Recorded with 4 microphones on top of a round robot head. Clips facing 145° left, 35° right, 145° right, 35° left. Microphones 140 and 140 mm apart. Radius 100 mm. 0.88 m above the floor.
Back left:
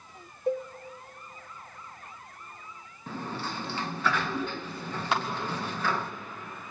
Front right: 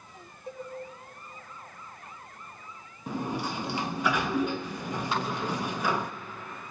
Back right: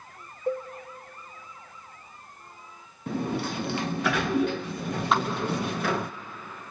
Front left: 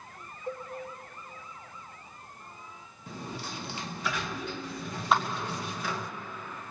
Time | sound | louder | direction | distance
0.5 | a cowbell | back left 11 dB, back right 9 dB | 175° right | 0.8 m
3.1 | a sliding door | front right 4 dB, back right 11 dB | 110° right | 0.6 m
5.1 | a clap | back left 2 dB, even | 125° left | 1.9 m